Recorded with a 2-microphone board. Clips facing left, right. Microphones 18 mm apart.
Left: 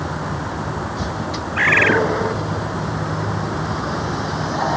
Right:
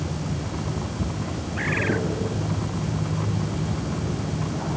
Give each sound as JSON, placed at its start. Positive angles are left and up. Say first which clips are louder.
{"t": 0.0, "sound": "a vehicle", "louder": "left 5 dB", "side_deg": 80}
{"t": 1.6, "sound": "a bird", "louder": "left 11 dB", "side_deg": 45}